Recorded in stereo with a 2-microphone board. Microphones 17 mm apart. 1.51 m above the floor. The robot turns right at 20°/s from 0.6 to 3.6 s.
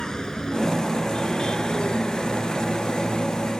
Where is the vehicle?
35° left (ahead or behind); by 3.6 s 85° left.